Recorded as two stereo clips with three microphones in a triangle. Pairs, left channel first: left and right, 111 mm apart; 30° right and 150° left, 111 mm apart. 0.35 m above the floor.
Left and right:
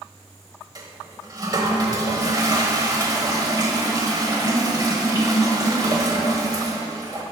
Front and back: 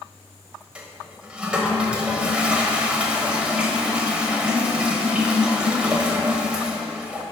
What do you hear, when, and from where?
0.8 s a toilet flushing: 135° right, 1.1 m